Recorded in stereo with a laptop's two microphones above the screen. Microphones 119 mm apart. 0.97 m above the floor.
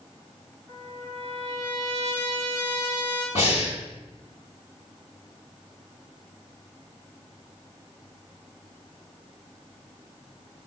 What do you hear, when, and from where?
0.7 s a trumpet: 10° right (ahead or behind), 3.5 m
3.4 s breathing: 80° left, 2.5 m